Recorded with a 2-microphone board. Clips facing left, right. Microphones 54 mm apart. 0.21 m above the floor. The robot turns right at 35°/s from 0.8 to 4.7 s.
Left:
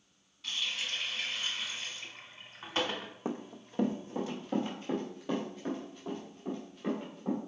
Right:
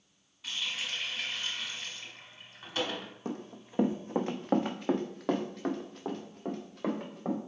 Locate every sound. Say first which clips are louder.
0.4 s a running tap: even; 20° right, 1.1 m; by 3.1 s 65° left, 1.1 m
3.2 s running footsteps: left 2 dB; 30° left (ahead or behind), 0.6 m; by 7.4 s 75° right (ahead or behind), 2 m